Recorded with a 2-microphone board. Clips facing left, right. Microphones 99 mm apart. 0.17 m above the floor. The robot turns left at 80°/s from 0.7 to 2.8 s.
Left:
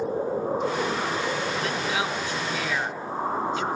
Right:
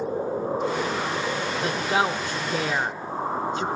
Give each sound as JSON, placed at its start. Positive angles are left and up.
{"t": 1.6, "sound": "a woman speaking", "side_deg": -20, "distance_m": 1.4}